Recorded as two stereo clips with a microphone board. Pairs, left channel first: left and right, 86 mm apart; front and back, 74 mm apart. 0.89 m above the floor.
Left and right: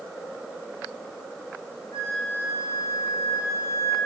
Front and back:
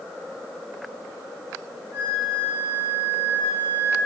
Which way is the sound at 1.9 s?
135° left.